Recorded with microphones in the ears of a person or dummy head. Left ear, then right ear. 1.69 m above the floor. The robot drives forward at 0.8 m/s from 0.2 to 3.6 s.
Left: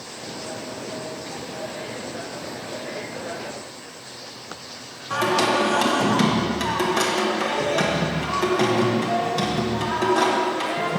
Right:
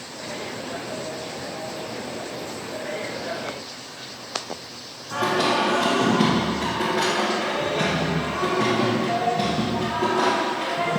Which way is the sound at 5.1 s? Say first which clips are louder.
Left 1 dB; 75° left (ahead or behind).